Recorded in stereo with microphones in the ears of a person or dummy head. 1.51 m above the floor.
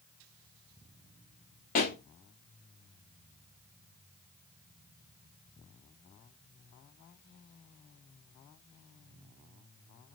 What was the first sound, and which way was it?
A pop, 35° left (ahead or behind).